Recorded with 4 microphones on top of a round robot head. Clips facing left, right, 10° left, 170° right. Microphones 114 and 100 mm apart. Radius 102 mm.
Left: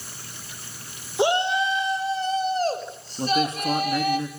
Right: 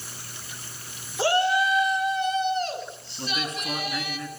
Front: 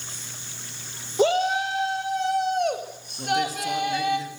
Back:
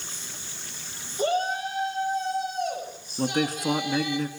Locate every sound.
1.2 s a shout: 20° left, 3.5 m; by 4.2 s 50° left, 7.5 m
3.2 s a man speaking: 155° left, 3 m